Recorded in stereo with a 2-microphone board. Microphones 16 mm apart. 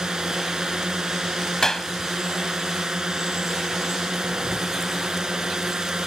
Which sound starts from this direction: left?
A clap, at 1.6 s.